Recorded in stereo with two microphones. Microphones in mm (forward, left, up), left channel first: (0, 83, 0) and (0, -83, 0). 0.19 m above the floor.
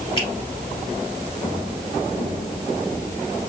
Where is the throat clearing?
I don't hear throat clearing.